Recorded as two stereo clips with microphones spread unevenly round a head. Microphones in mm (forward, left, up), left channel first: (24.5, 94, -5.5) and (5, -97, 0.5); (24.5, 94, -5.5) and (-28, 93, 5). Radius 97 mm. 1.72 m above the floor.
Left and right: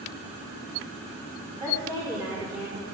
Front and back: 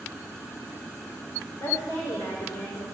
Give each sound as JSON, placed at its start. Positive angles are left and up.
{"t": 1.6, "sound": "a woman speaking", "azimuth_deg": -25, "distance_m": 5.5}